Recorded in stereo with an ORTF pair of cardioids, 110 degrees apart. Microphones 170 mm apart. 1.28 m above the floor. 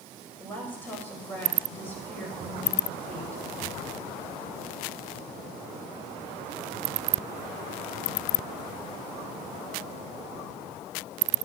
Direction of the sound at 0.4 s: 10° left.